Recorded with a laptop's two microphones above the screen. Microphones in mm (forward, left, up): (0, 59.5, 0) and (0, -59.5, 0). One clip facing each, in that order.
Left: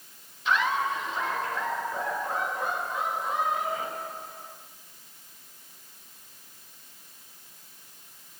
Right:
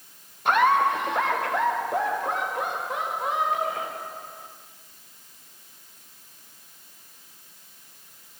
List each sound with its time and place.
0.5 s laughter: 50° right (ahead or behind), 1.6 m; by 4.5 s 80° right, 6.5 m